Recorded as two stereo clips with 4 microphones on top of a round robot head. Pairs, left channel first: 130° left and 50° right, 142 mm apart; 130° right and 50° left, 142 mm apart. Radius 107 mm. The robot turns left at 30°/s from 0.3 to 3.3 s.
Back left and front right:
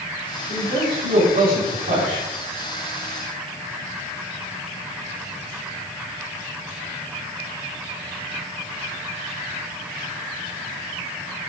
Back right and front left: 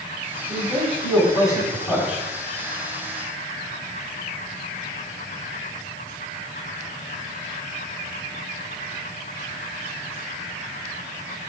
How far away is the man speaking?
About 5.5 m.